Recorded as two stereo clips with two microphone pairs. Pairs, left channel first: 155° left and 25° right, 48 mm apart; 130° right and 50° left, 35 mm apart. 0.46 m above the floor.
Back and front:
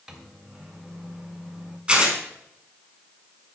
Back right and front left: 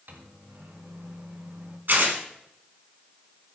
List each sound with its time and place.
0.1 s a microwave: 60° left, 1.4 m
1.9 s tearing paper: 40° left, 2.5 m